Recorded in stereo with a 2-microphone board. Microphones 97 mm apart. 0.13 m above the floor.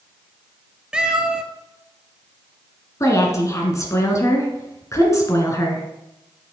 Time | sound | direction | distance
0.9 | a cat meowing | 10° right (ahead or behind) | 0.8 m
3.0 | a woman speaking | 30° left (ahead or behind) | 1.8 m